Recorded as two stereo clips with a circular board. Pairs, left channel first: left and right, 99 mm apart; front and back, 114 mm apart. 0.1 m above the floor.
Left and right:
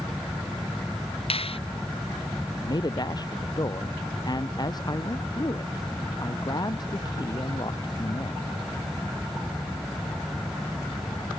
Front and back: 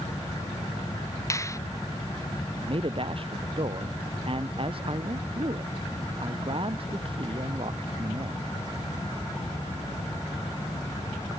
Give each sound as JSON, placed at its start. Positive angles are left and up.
{"t": 1.3, "sound": "a finger snap", "azimuth_deg": 65}
{"t": 2.6, "sound": "a man speaking", "azimuth_deg": 140}